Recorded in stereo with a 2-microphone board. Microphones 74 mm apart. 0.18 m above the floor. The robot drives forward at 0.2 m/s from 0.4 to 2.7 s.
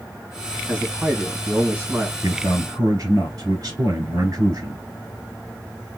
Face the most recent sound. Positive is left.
turn(degrees=-45)  # may be behind; listen again after turning